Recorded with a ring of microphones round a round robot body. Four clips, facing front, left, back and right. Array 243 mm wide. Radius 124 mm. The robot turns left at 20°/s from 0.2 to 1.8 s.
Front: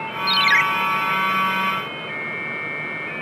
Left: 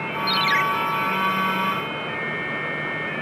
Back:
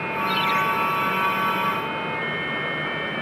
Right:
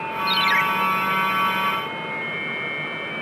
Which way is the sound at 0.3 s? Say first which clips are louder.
Even, front 4 dB; 10° left.